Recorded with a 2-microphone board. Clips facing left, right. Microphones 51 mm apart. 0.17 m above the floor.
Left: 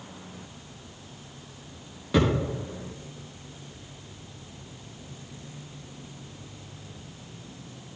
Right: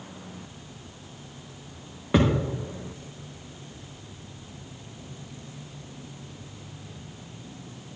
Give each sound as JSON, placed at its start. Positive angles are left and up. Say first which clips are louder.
{"t": 2.1, "sound": "a thud", "louder": "right 1 dB", "side_deg": -30, "distance_m": 5.0}